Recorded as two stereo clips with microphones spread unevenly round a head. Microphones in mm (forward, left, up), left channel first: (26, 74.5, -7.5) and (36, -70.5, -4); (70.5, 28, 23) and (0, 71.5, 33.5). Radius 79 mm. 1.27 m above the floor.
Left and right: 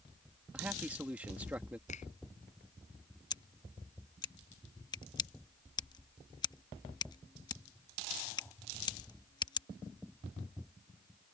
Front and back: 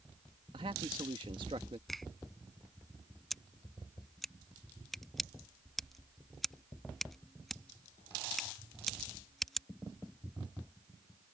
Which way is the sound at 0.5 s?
165° right.